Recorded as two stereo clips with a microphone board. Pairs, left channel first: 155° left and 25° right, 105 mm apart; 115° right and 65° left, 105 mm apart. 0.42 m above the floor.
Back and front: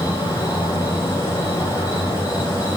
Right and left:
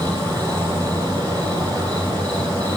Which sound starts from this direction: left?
An insect, at 0.0 s.